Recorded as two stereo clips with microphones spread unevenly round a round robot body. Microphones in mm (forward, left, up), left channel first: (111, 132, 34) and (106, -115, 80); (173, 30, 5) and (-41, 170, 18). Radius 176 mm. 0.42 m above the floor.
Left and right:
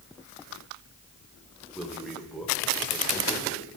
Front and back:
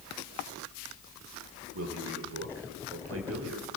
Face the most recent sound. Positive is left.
turn(degrees=170)